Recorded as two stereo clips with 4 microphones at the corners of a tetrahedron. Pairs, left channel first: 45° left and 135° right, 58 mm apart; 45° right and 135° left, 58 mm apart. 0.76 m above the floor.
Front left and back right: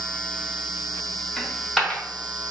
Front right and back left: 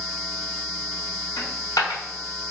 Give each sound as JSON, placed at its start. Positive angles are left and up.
{"t": 1.4, "sound": "a dropped coin", "azimuth_deg": -40, "distance_m": 1.0}